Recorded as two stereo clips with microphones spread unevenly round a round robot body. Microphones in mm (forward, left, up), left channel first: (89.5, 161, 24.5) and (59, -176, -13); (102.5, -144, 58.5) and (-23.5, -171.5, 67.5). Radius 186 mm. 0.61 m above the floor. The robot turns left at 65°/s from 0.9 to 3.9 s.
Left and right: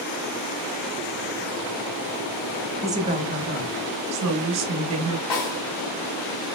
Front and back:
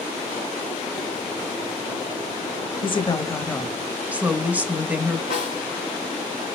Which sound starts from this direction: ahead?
A woman speaking, at 2.8 s.